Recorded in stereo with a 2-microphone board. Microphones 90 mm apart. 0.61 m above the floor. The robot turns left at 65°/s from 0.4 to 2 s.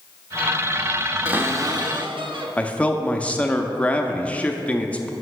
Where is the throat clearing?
No throat clearing in this recording.